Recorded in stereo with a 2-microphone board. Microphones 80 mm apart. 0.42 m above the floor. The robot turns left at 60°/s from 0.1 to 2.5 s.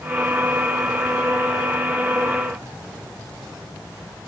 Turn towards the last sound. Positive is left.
No sound to turn to.